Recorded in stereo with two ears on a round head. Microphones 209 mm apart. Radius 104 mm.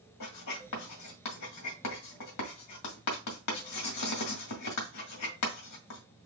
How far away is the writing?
About 2.0 m.